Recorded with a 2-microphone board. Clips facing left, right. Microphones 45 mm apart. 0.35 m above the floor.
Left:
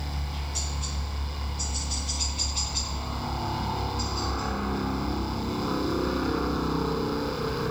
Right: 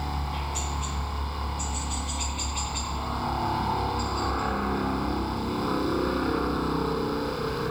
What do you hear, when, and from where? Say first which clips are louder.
0.0 s a helicopter: right 5 dB; 30° right (ahead or behind); by 7.7 s centre (ahead or behind)